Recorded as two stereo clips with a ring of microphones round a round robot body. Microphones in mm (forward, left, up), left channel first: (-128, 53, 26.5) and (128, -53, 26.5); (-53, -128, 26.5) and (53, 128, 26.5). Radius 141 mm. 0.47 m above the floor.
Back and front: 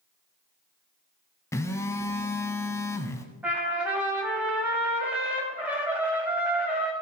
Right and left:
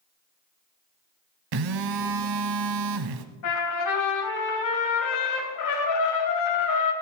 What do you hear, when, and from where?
1.5 s a phone buzzing: 75° left, 0.9 m
3.4 s a trumpet: 110° right, 3 m